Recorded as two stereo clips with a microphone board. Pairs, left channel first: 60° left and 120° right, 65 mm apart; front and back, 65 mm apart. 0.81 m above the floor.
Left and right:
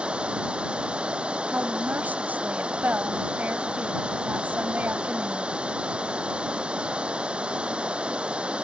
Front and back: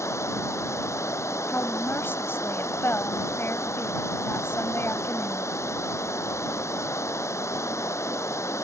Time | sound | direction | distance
0.0 | running water | 45° right | ?
1.5 | a woman speaking | 55° right | ?